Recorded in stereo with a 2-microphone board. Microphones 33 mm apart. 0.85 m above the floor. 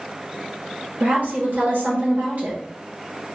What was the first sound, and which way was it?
A woman speaking, 60° right (ahead or behind).